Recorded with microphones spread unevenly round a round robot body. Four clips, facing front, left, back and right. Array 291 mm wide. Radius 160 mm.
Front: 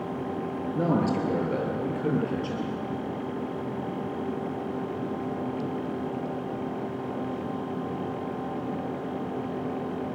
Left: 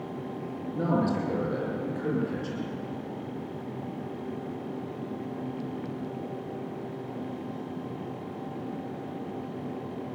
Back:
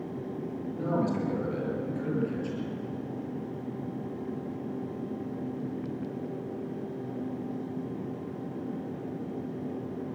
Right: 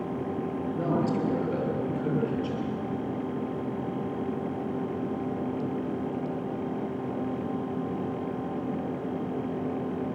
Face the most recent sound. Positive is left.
turn(degrees=25)